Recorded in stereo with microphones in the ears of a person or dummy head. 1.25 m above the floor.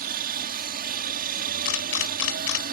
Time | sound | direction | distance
0.0 | a helicopter | 40° right (ahead or behind) | ?
1.6 | a camera shutter | 75° left (ahead or behind) | ?